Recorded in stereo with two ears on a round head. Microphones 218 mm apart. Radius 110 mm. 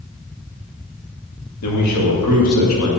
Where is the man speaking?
80° left, 2 m; by 2.9 s 60° left (ahead or behind), 1.6 m.